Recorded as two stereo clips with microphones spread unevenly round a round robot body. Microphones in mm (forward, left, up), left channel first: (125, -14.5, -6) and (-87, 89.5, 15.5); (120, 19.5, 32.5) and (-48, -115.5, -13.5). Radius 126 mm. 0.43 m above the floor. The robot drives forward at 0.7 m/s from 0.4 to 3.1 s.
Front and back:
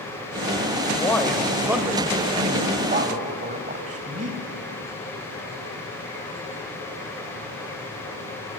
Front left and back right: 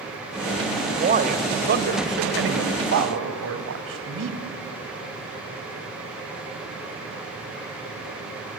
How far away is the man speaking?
About 1.7 m.